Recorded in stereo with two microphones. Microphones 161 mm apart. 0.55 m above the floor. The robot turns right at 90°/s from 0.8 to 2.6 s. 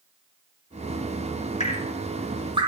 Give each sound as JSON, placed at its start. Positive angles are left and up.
{"t": 1.6, "sound": "dripping", "side_deg": 45, "distance_m": 0.8}